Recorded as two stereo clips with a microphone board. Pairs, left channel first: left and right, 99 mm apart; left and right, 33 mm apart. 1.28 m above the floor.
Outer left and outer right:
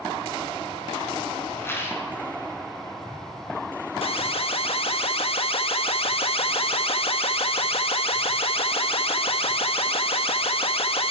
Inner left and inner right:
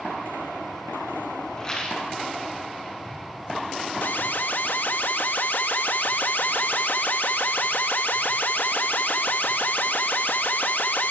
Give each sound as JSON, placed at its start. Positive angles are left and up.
{"t": 1.6, "sound": "a rattle", "side_deg": 25, "distance_m": 8.5}
{"t": 4.0, "sound": "an alarm", "side_deg": 70, "distance_m": 1.5}